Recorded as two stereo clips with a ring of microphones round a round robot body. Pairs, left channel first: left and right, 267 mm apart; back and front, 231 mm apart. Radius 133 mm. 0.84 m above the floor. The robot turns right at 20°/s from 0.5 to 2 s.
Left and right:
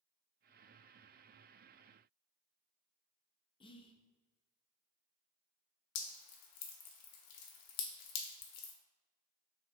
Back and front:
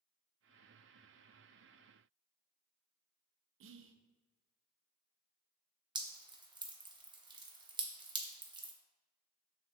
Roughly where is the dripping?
Left.